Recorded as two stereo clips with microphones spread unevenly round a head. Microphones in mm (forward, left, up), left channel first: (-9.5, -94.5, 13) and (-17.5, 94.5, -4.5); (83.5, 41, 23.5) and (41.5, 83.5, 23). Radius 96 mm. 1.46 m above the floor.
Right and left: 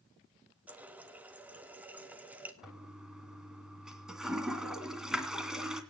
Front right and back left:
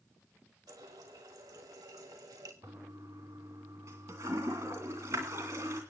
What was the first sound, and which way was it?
A running tap, 175° left.